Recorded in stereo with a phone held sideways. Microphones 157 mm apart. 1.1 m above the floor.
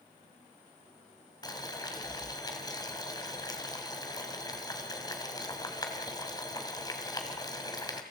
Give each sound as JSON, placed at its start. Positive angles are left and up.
{"t": 1.4, "sound": "boiling", "side_deg": 25, "distance_m": 2.5}